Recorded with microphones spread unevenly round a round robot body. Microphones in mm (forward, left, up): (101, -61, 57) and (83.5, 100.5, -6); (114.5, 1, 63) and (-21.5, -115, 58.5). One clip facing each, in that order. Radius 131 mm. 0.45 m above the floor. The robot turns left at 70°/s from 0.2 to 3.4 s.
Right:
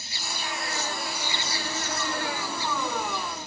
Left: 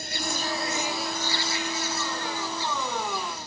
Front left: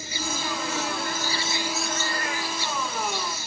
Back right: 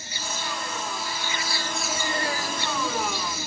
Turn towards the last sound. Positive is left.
turn(degrees=-160)